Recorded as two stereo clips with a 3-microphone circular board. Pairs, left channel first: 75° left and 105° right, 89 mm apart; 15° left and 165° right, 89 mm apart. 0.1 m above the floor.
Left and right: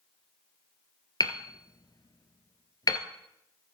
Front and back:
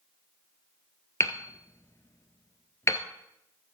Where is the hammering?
65° left, 0.9 m.